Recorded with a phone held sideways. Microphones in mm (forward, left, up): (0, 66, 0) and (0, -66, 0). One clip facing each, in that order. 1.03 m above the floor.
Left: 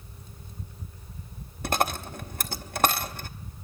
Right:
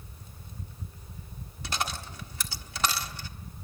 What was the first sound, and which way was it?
A dropped coin, 50° left (ahead or behind).